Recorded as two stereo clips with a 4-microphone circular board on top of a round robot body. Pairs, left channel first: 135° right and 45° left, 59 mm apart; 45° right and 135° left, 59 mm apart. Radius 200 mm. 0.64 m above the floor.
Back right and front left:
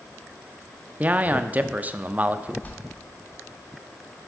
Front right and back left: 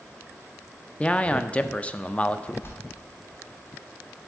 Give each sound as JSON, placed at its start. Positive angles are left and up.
{"t": 1.0, "sound": "a man speaking", "azimuth_deg": 5, "distance_m": 0.5}
{"t": 2.6, "sound": "a bell", "azimuth_deg": -80, "distance_m": 1.0}